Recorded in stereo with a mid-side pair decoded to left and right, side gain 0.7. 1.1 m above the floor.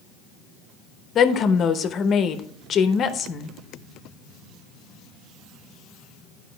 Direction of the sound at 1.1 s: 40° left.